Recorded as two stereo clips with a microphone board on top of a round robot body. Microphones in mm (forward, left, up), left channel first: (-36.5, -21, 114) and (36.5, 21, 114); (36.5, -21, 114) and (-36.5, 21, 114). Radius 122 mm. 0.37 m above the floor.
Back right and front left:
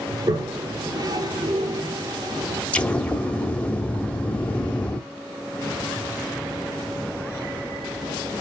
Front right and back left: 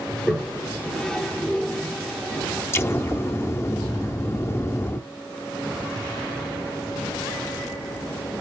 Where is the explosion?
80° right, 0.8 m.